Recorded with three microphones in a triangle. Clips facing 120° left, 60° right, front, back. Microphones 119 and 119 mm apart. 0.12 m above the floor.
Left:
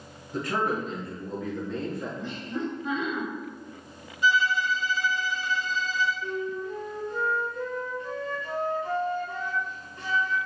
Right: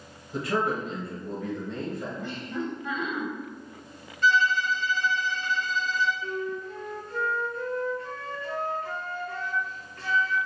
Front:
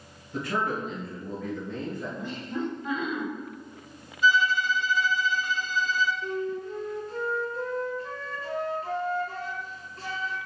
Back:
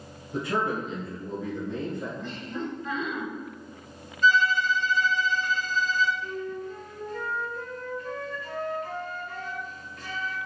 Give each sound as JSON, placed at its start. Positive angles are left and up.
{"t": 0.3, "sound": "a man speaking", "azimuth_deg": -140, "distance_m": 1.7}
{"t": 2.2, "sound": "laughter", "azimuth_deg": 75, "distance_m": 1.5}
{"t": 4.2, "sound": "a violin", "azimuth_deg": 65, "distance_m": 0.5}
{"t": 6.2, "sound": "a flute", "azimuth_deg": 50, "distance_m": 0.7}